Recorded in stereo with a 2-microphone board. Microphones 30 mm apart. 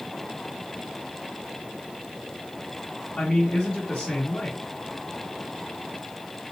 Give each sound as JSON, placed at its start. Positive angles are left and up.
{"t": 3.2, "sound": "a man speaking", "side_deg": 25, "distance_m": 3.0}